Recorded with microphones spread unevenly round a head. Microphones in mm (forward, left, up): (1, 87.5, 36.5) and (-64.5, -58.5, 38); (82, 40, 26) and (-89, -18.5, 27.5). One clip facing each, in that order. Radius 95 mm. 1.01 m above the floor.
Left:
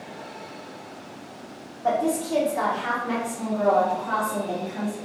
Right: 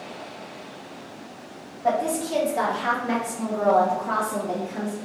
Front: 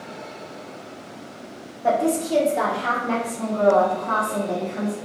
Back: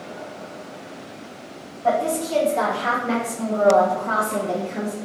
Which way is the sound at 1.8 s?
35° right.